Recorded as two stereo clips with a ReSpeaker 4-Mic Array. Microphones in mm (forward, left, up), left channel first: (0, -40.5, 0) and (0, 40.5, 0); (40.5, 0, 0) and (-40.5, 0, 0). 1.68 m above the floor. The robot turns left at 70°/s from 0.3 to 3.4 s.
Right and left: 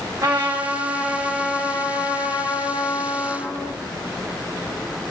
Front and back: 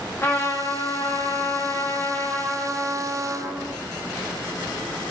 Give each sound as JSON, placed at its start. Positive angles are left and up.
{"t": 0.2, "sound": "a trumpet", "azimuth_deg": 55, "distance_m": 0.6}